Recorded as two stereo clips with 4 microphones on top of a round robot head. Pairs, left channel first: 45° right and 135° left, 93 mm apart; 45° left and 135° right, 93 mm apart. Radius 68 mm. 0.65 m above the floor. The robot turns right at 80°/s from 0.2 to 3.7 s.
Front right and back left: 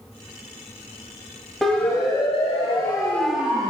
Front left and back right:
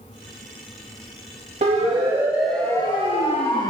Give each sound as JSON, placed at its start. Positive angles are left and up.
{"t": 1.6, "sound": "a siren", "azimuth_deg": -130, "distance_m": 3.5}